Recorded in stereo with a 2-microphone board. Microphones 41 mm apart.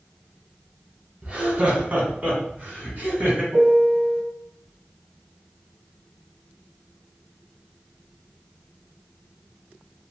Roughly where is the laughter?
Right.